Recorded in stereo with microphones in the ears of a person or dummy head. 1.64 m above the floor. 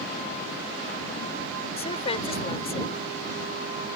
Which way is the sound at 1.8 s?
25° left (ahead or behind).